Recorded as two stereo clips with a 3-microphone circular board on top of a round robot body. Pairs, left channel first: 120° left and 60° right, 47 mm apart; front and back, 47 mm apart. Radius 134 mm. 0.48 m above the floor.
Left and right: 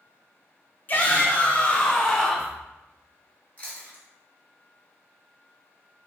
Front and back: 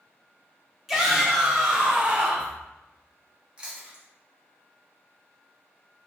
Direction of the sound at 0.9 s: 100° left.